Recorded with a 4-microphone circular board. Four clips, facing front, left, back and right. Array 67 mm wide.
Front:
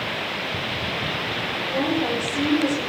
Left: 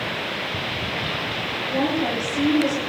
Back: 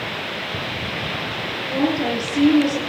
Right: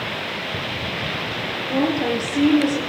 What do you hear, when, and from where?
1.7 s a woman speaking: 120° right, 5.5 m